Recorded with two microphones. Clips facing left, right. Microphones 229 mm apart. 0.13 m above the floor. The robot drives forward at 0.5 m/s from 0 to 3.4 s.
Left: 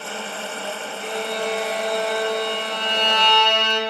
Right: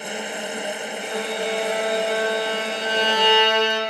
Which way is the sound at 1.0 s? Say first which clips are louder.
Left 1 dB; 5° right (ahead or behind).